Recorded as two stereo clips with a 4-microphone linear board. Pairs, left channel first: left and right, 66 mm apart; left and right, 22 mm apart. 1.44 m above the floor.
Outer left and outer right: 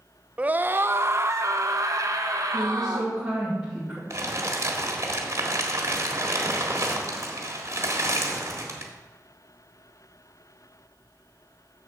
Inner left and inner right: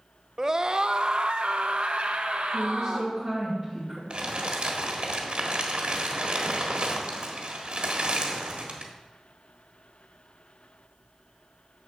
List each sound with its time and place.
0.4 s a scream: 20° right (ahead or behind), 0.5 m; by 3.1 s 65° right (ahead or behind), 1.7 m
2.5 s a woman speaking: 10° right (ahead or behind), 3 m
4.1 s crumpling: 45° right (ahead or behind), 1.6 m